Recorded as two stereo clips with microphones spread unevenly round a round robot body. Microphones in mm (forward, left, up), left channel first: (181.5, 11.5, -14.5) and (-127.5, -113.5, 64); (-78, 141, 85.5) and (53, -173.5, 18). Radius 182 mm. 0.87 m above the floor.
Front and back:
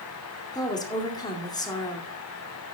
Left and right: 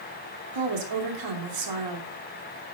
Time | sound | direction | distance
0.5 | a woman speaking | 55° right | 2.5 m